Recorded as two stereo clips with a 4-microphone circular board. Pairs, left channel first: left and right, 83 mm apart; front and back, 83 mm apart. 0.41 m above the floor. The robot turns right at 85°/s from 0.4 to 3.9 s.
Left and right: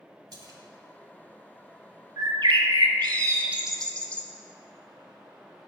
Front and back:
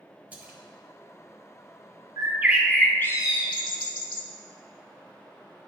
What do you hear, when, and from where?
0.3 s a splash: 110° right, 0.9 m; by 0.6 s 95° right, 0.9 m
2.2 s a bird: 135° right, 0.6 m; by 4.2 s 15° left, 0.6 m